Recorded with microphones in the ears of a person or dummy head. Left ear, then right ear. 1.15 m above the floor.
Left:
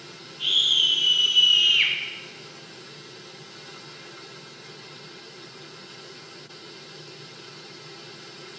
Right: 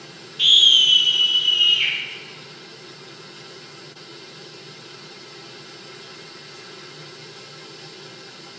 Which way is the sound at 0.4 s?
60° right (ahead or behind).